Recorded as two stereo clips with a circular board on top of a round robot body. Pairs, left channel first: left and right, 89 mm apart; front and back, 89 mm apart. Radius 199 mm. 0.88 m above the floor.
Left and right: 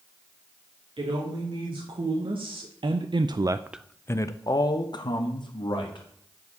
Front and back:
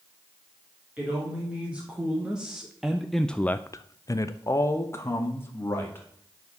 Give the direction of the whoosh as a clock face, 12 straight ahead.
No whoosh in this recording.